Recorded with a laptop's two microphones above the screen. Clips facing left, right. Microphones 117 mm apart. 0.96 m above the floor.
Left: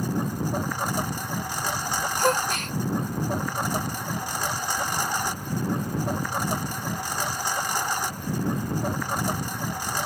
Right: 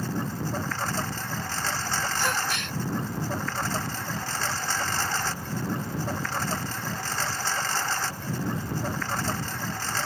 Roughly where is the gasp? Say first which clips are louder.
Left 5 dB; left.